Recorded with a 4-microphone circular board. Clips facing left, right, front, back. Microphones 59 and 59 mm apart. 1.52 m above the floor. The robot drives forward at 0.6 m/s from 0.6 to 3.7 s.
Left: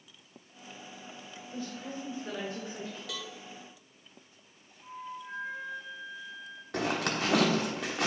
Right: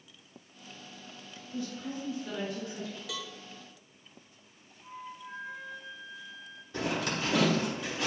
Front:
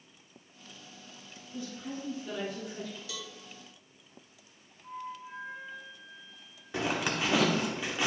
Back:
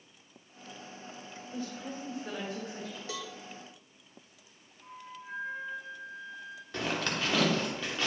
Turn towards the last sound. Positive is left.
turn(degrees=75)